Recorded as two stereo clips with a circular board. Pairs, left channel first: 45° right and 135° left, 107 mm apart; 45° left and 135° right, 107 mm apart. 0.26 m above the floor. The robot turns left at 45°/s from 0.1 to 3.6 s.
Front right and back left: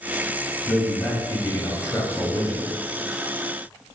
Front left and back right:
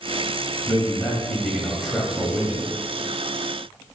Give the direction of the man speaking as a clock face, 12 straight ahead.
12 o'clock.